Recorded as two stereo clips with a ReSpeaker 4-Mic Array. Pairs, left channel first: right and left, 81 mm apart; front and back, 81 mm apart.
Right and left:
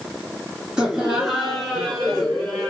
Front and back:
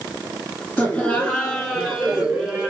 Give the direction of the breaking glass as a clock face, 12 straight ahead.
I don't hear breaking glass.